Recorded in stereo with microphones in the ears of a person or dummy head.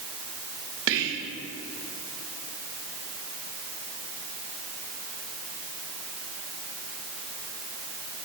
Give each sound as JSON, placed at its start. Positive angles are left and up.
{"t": 0.9, "sound": "whispering", "side_deg": -70, "distance_m": 0.7}